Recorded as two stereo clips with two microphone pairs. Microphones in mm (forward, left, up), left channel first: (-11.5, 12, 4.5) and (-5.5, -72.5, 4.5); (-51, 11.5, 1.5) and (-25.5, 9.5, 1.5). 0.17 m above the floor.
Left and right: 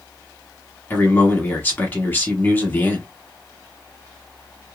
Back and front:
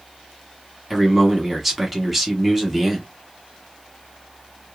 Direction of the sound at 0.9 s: 65° left.